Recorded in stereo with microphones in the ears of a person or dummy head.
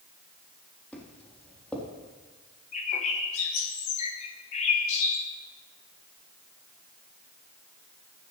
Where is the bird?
45° left (ahead or behind), 3 m.